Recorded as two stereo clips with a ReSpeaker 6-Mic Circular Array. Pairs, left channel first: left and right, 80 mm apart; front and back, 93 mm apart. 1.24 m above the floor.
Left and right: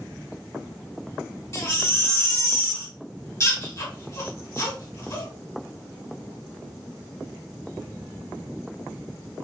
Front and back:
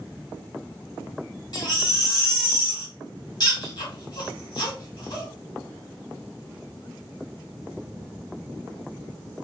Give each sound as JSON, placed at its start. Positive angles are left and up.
{"t": 1.5, "sound": "a baby crying", "azimuth_deg": 40, "distance_m": 1.7}